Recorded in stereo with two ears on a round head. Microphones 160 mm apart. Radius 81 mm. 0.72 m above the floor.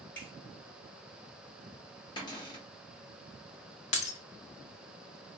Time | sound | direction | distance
0.1 | a finger snap | 10° left (ahead or behind) | 1.9 m
2.2 | a cupboard door | 25° left (ahead or behind) | 1.2 m
3.9 | breaking glass | 40° left (ahead or behind) | 0.7 m